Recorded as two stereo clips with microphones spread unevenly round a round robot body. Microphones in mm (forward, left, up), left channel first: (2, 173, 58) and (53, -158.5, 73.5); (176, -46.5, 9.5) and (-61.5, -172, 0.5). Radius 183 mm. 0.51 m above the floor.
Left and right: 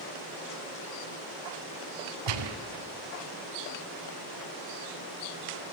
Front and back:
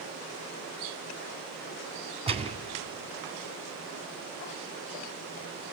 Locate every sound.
2.3 s a gunshot: 85° right, 2.5 m